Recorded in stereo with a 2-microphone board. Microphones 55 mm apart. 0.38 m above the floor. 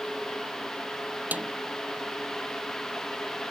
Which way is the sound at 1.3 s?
30° right (ahead or behind).